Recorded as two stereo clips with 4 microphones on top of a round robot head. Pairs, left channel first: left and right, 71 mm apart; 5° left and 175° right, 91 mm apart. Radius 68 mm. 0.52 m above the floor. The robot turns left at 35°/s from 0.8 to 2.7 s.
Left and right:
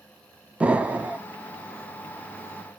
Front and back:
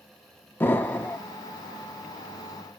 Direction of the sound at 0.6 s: 35° right.